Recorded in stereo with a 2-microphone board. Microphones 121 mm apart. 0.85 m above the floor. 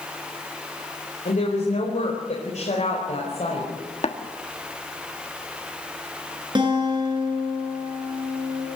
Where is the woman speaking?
80° left, 4.5 m; by 3.7 s 60° left (ahead or behind), 5 m.